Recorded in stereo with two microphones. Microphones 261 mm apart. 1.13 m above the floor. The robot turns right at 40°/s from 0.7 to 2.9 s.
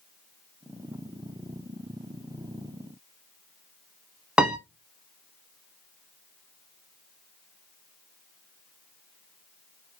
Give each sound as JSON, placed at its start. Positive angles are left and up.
{"t": 4.4, "sound": "a piano", "side_deg": -5, "distance_m": 0.7}